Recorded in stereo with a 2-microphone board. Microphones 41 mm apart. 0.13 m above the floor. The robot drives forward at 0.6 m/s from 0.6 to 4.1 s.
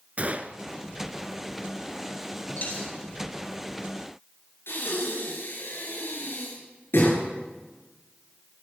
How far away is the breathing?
About 9.5 m.